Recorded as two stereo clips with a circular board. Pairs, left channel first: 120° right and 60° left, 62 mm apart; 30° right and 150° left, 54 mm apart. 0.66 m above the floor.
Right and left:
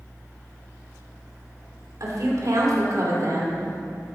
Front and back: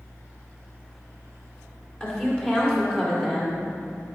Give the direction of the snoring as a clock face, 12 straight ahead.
I don't hear snoring.